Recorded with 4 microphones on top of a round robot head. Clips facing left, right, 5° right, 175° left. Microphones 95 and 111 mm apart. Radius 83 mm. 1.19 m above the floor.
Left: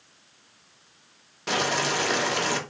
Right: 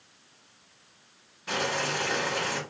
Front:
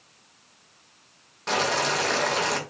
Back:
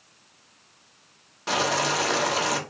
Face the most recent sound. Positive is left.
turn(degrees=90)